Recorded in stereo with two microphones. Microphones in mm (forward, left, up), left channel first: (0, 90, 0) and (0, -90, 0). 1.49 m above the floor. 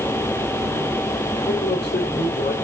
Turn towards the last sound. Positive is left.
turn(degrees=70)  # may be behind; listen again after turning